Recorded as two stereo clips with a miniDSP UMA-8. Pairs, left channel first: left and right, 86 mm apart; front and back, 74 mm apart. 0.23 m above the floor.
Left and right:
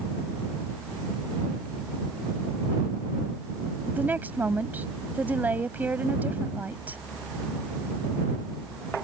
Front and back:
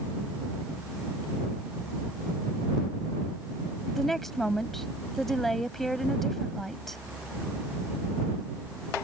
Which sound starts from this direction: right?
A woman speaking, at 3.9 s.